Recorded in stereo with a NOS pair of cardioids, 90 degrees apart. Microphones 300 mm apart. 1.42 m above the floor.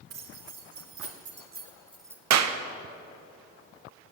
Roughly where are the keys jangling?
Ahead right.